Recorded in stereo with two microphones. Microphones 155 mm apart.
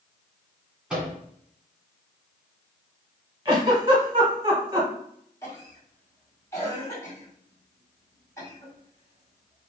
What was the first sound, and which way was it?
A microwave, 5° right (ahead or behind).